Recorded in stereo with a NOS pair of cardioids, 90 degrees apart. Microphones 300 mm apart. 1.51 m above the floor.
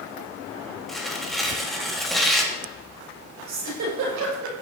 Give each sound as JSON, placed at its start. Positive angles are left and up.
{"t": 0.9, "sound": "tearing paper", "azimuth_deg": 0, "distance_m": 3.0}
{"t": 3.5, "sound": "a giggle", "azimuth_deg": -65, "distance_m": 6.5}